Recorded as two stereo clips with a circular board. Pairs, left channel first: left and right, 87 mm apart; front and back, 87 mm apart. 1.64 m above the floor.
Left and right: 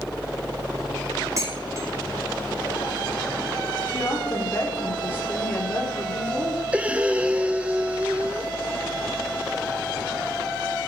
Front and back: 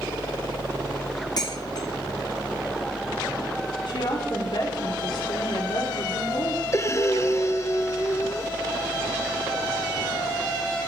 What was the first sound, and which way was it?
Dishes clattering, 40° right.